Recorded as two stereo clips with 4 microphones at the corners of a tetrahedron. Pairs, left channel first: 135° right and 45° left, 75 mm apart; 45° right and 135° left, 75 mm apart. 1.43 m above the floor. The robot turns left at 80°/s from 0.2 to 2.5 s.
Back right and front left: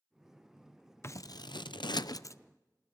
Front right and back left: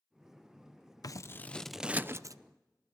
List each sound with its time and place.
1.0 s scissors: 80° right, 0.6 m; by 2.4 s 175° left, 0.6 m